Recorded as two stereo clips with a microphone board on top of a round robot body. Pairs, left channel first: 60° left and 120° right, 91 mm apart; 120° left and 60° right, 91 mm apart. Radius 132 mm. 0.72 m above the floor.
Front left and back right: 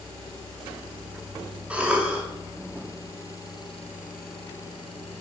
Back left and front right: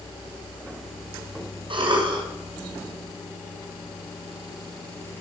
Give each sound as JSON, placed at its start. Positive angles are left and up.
{"t": 1.7, "sound": "a cough", "azimuth_deg": -45, "distance_m": 2.0}